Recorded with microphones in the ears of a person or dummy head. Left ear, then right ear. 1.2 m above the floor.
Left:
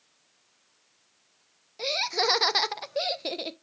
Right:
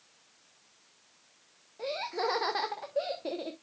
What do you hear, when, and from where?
1.8 s laughter: 70° left (ahead or behind), 0.7 m